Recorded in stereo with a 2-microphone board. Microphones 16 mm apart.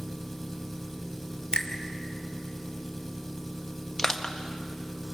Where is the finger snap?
70° left (ahead or behind), 2.5 m.